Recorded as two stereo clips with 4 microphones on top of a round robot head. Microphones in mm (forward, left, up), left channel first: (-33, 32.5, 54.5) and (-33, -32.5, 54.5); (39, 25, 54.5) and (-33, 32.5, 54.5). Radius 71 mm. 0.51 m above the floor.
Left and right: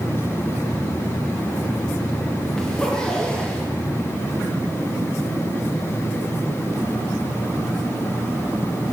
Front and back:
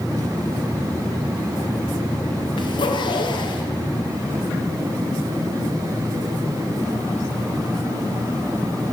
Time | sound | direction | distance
2.6 | a zipper | 5° left | 4 m